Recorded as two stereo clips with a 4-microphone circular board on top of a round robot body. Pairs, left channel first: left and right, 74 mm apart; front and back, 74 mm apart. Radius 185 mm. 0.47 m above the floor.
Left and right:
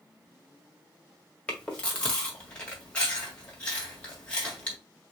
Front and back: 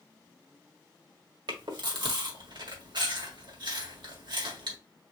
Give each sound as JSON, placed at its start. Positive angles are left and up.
{"t": 1.5, "sound": "chewing", "azimuth_deg": 165, "distance_m": 2.0}